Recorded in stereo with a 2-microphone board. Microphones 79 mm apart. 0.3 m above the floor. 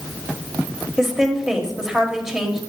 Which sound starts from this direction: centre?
A woman speaking, at 1.0 s.